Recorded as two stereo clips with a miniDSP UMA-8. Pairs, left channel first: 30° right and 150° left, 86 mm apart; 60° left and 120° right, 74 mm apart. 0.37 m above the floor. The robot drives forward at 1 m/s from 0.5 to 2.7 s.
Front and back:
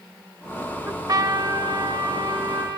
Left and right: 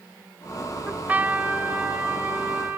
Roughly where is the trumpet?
Behind.